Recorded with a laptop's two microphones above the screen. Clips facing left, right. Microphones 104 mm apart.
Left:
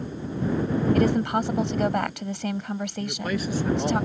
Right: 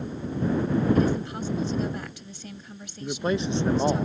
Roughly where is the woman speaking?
Left.